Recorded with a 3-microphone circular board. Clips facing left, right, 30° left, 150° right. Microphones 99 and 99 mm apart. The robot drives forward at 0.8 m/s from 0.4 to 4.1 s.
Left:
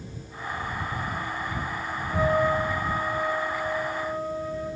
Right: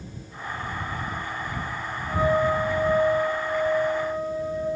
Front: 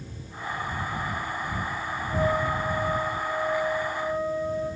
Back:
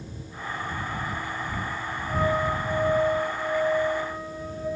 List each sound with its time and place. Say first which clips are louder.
2.1 s a flute: right 1 dB, back 1 dB; 145° right, 0.8 m; by 4.7 s 170° right, 2.5 m